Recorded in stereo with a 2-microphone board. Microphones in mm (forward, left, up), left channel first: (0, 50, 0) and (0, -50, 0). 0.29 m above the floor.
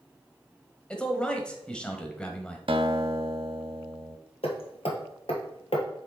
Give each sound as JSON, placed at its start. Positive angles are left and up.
{"t": 0.9, "sound": "a man speaking", "side_deg": 10, "distance_m": 1.1}
{"t": 2.7, "sound": "a guitar", "side_deg": -60, "distance_m": 0.6}
{"t": 4.4, "sound": "hammering", "side_deg": 70, "distance_m": 1.5}